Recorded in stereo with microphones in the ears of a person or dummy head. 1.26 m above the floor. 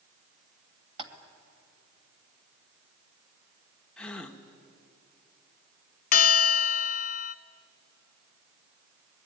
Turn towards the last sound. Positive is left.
turn(degrees=50)  # may be behind; listen again after turning